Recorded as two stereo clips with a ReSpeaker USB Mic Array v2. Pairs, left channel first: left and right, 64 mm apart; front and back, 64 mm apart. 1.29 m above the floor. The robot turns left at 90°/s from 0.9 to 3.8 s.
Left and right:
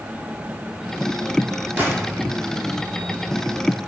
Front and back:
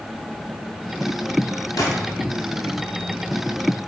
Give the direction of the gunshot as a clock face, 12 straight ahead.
1 o'clock.